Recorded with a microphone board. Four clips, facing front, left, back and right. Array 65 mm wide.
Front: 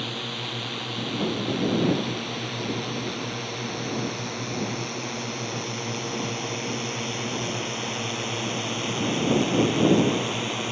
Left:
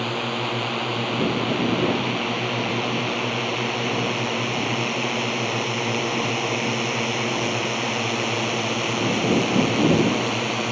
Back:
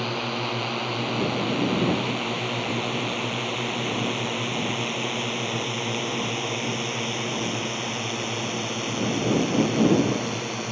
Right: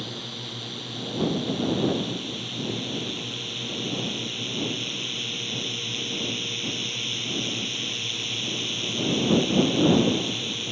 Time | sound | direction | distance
0.0 | a drone | 125° left | ?